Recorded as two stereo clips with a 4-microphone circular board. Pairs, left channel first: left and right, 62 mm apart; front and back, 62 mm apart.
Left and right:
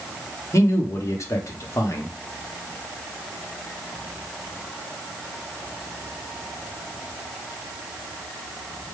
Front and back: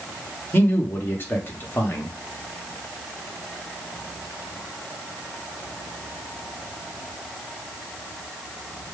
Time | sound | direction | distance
0.5 | a man speaking | 55° left | 1.0 m